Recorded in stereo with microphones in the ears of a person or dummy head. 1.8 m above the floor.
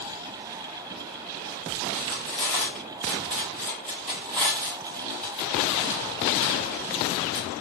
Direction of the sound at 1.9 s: 10° left (ahead or behind).